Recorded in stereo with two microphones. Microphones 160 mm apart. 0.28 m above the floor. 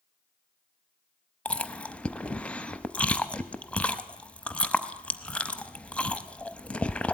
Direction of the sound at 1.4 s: 10° left (ahead or behind).